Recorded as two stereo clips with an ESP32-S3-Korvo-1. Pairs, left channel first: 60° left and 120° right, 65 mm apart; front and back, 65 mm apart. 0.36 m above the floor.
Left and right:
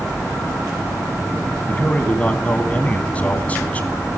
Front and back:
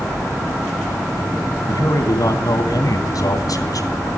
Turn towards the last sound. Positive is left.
turn(degrees=-5)